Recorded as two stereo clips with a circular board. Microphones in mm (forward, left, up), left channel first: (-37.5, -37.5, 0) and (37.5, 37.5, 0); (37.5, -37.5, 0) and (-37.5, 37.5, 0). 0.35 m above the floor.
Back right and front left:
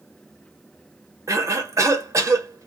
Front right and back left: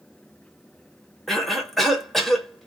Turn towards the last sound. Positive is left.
turn(degrees=45)